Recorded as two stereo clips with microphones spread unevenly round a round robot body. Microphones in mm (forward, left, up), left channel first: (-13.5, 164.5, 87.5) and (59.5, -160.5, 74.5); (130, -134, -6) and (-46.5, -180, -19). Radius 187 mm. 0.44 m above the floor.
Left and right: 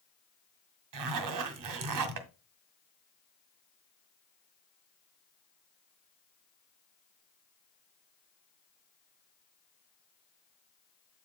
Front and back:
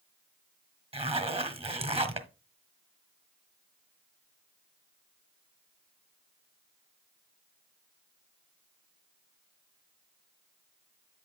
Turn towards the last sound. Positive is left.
turn(degrees=-105)